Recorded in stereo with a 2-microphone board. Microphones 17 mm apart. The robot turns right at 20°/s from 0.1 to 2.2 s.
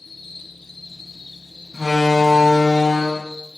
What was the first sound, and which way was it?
An insect, 25° left.